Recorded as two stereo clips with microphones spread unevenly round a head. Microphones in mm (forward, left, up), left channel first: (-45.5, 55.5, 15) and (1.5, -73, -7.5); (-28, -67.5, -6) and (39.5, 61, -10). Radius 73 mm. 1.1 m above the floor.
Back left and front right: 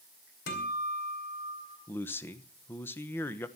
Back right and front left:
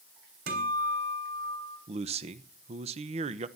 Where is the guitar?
90° left, 3.5 m.